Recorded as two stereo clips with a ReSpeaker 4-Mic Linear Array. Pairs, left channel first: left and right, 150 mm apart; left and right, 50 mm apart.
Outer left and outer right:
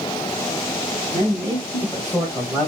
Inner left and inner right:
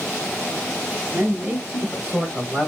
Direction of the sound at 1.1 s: 15° right (ahead or behind).